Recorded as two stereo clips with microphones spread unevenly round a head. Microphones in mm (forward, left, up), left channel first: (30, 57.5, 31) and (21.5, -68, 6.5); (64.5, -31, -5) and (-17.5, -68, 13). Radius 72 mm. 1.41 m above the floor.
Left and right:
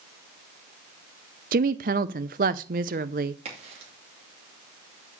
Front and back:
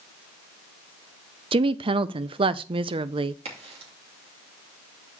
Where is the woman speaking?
130° right, 0.6 m.